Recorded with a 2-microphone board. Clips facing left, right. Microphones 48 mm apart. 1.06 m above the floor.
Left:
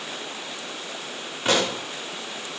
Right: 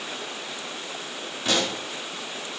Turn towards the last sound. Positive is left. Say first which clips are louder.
# left 3 dB
turn(degrees=30)  # may be behind; listen again after turning